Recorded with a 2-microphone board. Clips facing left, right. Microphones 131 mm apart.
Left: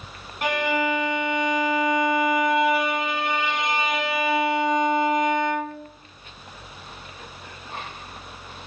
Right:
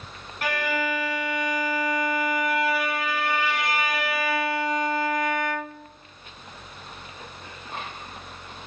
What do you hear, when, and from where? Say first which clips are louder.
0.4 s a violin: left 4 dB; 20° left (ahead or behind), 0.9 m